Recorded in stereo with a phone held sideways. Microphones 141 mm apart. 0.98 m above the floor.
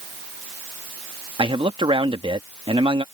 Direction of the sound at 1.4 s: 35° right (ahead or behind).